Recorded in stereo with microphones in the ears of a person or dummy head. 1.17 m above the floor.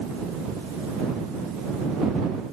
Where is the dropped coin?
No dropped coin in this recording.